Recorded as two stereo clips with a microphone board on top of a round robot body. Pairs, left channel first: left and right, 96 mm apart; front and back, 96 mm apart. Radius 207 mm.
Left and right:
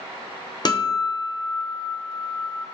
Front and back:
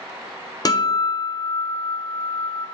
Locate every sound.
0.7 s a guitar: 50° left, 1.3 m